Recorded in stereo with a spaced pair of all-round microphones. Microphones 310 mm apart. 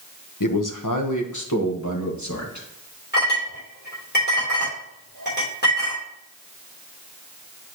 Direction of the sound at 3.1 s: 30° left (ahead or behind).